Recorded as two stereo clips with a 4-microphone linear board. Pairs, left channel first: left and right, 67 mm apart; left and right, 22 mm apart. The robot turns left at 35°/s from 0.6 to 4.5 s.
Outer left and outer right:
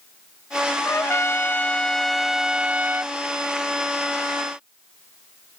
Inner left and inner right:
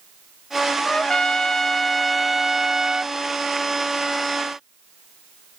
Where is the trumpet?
50° left; by 3.1 s 30° right.